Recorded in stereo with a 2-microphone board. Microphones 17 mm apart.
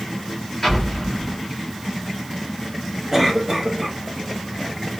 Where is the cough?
15° right (ahead or behind), 2 m.